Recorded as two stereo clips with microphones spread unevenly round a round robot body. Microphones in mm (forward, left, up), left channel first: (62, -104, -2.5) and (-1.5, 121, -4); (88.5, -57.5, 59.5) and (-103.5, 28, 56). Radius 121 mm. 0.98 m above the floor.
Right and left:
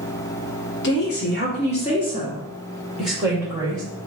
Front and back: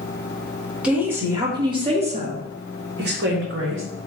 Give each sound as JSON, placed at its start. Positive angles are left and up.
{"t": 0.8, "sound": "a woman speaking", "azimuth_deg": -120, "distance_m": 1.5}